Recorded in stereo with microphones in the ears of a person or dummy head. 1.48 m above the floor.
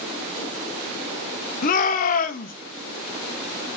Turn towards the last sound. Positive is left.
turn(degrees=50)  # may be behind; listen again after turning